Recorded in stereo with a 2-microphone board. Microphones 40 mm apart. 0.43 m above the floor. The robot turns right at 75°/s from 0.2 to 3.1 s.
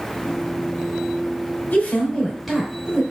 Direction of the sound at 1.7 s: 125° left.